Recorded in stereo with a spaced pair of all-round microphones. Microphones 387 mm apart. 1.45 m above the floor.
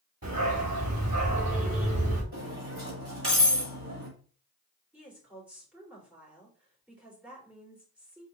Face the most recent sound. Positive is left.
turn(degrees=-5)  # may be behind; listen again after turning